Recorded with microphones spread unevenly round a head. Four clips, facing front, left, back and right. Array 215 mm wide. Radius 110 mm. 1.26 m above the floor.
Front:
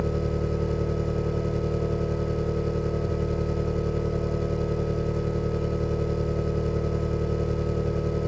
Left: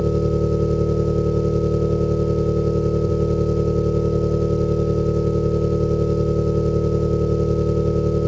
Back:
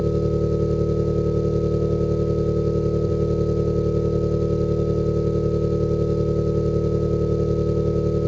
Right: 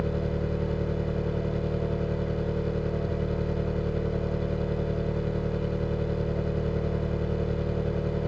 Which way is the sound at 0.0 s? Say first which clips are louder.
Left 10 dB, back 6 dB; 130° left.